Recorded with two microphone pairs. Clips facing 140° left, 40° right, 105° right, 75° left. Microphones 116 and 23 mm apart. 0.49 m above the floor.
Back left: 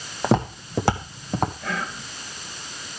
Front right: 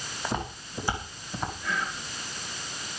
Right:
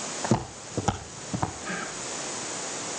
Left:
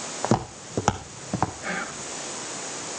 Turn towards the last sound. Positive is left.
turn(degrees=115)